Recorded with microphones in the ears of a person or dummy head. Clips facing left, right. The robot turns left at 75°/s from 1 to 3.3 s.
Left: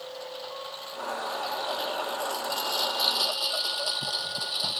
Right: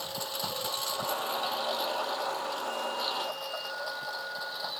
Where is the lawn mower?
60° right (ahead or behind); by 4.8 s 40° left (ahead or behind).